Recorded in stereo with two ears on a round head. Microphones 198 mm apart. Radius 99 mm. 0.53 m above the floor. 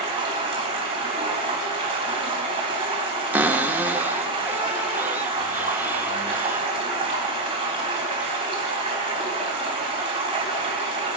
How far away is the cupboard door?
About 0.6 m.